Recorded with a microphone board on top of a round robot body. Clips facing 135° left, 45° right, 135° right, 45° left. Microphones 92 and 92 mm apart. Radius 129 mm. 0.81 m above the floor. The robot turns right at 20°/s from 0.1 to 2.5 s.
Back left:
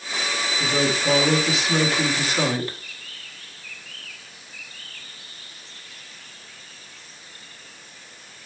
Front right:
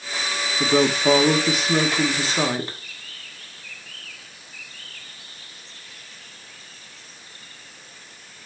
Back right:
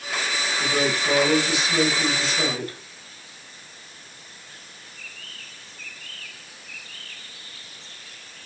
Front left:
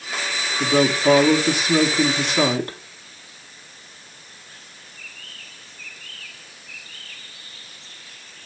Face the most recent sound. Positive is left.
turn(degrees=20)